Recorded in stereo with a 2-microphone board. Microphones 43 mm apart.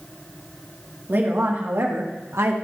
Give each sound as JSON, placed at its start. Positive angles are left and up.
{"t": 1.1, "sound": "a woman speaking", "side_deg": -50, "distance_m": 2.0}